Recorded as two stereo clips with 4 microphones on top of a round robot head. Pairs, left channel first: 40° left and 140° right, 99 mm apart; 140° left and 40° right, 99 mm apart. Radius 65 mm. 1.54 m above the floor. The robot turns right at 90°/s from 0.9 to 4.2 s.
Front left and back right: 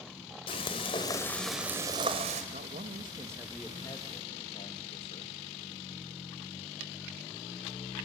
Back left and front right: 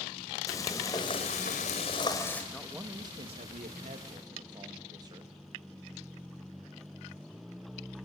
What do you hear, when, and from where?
0.5 s frying: 80° left, 2 m; by 2.4 s 145° right, 2 m
2.5 s a man speaking: 140° right, 2.5 m; by 5.3 s 10° left, 2.5 m